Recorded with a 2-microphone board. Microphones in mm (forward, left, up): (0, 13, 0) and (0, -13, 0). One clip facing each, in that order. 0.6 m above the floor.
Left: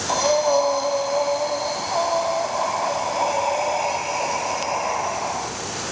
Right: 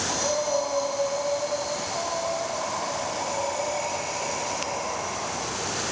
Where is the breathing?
45° left (ahead or behind), 2.5 m.